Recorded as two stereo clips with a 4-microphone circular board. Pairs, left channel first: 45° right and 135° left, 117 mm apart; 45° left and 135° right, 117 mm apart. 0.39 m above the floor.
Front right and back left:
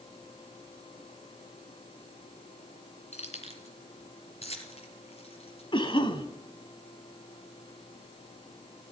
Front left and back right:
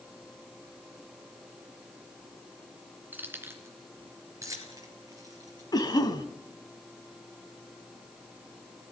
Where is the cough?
5° right, 2.5 m.